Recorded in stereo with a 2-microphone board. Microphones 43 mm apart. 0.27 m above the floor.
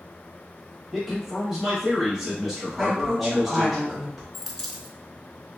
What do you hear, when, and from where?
0.9 s a man speaking: 10° right (ahead or behind), 0.9 m
2.8 s a woman speaking: centre (ahead or behind), 1.4 m
4.3 s a dropped coin: 5° left (ahead or behind), 0.6 m